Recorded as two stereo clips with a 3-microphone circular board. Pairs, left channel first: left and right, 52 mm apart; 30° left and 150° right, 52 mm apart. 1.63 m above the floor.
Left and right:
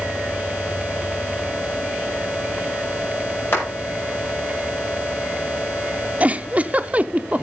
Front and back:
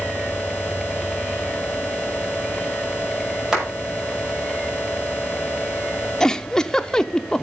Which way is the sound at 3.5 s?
130° left.